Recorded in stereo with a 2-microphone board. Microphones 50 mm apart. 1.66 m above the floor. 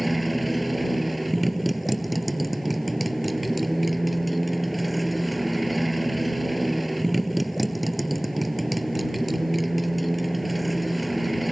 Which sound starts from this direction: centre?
A motorcycle, at 0.0 s.